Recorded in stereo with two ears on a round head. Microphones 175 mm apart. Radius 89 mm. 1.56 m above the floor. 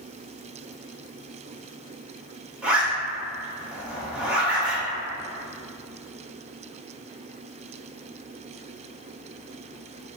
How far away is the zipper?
About 0.9 m.